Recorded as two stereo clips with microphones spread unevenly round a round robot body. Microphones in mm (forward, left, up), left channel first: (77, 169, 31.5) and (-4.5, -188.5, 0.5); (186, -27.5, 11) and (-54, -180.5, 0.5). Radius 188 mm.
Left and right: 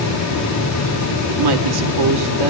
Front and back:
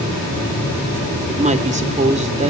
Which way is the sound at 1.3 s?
80° right.